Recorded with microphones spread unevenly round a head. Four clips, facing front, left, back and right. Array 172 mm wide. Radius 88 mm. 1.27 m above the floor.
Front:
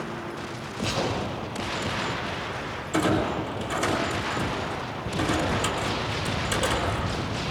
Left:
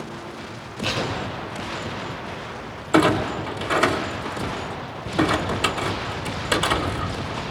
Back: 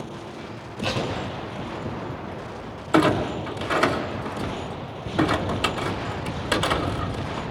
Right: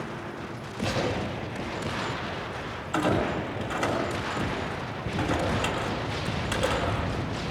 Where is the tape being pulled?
165° right, 7.5 m.